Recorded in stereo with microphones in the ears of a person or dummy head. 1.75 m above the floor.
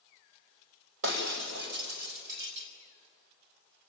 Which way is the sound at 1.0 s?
65° right (ahead or behind).